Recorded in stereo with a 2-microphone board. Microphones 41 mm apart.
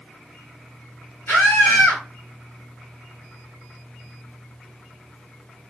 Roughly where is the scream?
Left.